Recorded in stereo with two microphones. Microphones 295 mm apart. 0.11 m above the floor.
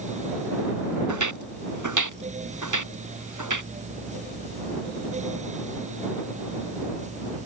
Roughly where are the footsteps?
Right.